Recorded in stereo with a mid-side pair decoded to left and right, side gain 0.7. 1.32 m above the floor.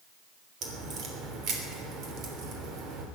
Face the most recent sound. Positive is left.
turn(degrees=-50)